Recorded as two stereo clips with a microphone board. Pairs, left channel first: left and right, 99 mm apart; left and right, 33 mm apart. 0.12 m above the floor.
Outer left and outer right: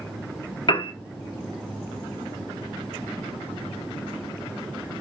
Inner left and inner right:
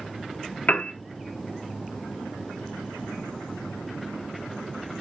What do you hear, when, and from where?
0.7 s a piano: 60° left (ahead or behind), 0.7 m